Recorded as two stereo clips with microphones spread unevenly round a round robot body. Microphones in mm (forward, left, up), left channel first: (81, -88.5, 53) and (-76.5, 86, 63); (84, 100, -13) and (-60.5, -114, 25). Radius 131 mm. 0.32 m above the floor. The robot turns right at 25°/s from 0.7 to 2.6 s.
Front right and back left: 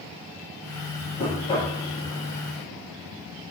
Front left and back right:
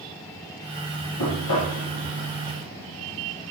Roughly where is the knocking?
Ahead.